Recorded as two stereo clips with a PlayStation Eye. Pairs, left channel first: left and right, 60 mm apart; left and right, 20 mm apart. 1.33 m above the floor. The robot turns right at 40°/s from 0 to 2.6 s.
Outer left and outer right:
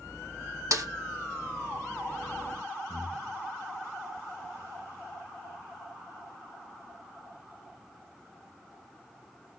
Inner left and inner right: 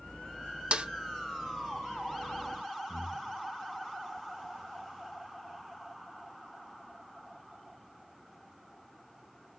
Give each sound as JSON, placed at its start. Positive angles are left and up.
{"t": 0.7, "sound": "a snare drum", "side_deg": -60, "distance_m": 1.2}
{"t": 2.9, "sound": "breathing", "side_deg": -10, "distance_m": 2.0}